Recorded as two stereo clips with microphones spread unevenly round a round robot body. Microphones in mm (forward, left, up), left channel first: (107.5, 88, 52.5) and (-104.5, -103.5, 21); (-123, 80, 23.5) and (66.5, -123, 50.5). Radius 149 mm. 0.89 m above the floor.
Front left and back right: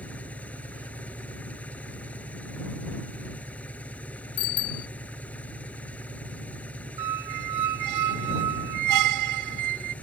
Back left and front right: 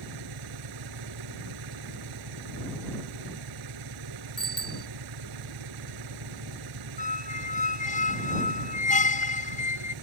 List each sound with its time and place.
0.0 s an engine running: 40° right
4.4 s a bicycle bell: 45° left
7.0 s a squeak: 160° right